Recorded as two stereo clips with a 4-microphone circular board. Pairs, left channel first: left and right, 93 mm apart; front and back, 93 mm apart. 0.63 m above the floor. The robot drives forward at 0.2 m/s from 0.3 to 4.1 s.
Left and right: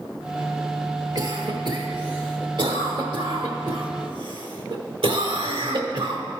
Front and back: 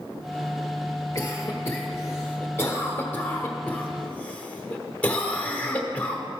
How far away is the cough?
About 1.6 m.